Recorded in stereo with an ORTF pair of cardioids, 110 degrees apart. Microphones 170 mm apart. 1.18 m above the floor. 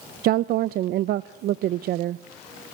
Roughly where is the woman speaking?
Ahead right.